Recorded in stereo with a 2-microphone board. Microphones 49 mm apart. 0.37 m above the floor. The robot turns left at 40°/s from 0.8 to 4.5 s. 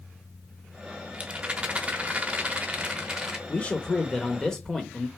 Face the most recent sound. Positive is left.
turn(degrees=10)  # may be behind; listen again after turning